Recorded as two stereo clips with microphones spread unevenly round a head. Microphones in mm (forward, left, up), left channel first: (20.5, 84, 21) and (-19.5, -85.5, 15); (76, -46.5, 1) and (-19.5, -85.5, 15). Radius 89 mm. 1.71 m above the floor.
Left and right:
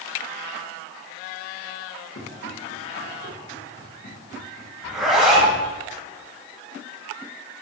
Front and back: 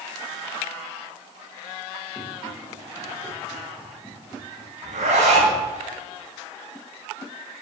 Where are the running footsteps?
115° left, 8 m; by 4.7 s 120° left, 6.5 m.